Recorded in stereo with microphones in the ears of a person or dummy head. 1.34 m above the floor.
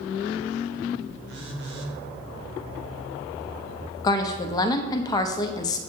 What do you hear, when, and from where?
1.3 s a phone buzzing: 60° right (ahead or behind), 1.0 m
4.0 s a woman speaking: 25° left (ahead or behind), 0.5 m